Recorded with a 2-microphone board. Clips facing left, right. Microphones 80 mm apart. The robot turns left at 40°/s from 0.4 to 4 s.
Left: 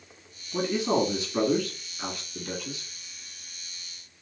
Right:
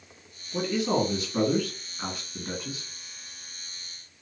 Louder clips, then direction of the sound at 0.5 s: Left 1 dB; 30° left.